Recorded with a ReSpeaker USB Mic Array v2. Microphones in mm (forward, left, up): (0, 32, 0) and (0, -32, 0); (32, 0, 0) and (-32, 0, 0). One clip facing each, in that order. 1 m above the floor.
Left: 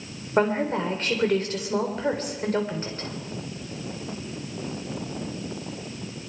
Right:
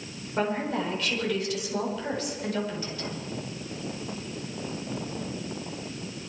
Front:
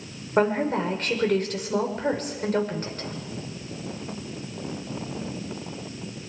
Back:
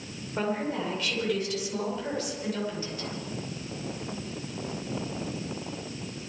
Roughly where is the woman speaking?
Ahead left.